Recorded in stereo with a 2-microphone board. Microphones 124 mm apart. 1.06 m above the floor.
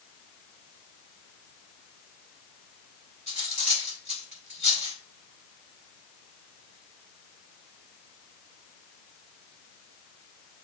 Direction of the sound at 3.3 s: 75° left (ahead or behind).